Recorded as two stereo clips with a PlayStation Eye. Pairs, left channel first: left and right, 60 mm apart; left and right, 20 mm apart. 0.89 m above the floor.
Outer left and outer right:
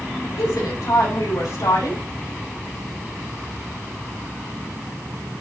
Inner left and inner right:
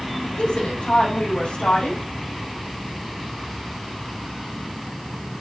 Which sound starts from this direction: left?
A woman speaking, at 0.4 s.